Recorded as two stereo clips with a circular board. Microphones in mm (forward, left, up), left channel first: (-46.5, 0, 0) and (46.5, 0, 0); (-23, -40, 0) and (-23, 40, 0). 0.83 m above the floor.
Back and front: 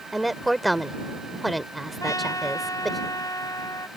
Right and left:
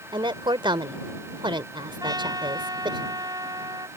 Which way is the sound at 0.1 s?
90° left.